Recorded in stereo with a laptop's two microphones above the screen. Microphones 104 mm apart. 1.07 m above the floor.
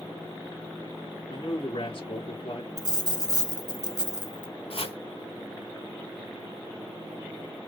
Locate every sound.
1.3 s a man speaking: 55° left (ahead or behind), 1.4 m
2.8 s a dropped coin: 40° right (ahead or behind), 1.3 m
4.7 s chopping: 65° left (ahead or behind), 1.7 m